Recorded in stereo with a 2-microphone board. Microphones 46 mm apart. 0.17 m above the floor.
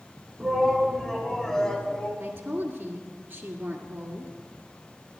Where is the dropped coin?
No dropped coin in this recording.